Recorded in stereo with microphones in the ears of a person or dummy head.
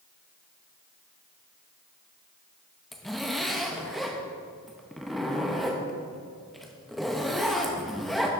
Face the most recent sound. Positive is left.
turn(degrees=0)  # may be behind; listen again after turning